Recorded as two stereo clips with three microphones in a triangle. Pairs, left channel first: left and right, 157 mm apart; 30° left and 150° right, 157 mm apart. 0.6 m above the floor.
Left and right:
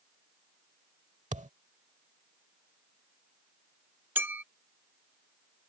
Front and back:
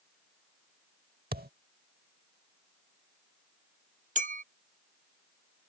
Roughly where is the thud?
Behind right.